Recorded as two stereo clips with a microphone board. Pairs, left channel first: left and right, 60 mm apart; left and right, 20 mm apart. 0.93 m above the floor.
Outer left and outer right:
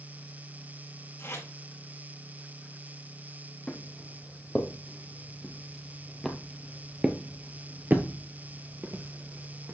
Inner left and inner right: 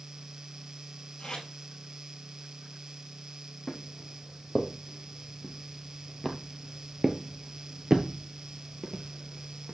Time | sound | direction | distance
1.2 | tape being pulled | 45° left (ahead or behind) | 5 m
3.7 | footsteps | 20° left (ahead or behind) | 2.5 m